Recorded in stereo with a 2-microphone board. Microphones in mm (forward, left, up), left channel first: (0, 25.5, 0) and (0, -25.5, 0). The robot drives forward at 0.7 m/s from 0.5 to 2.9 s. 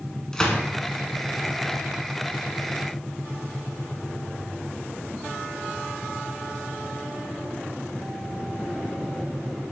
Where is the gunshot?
15° left (ahead or behind), 1.2 m; by 0.6 s 10° left (ahead or behind), 1.2 m.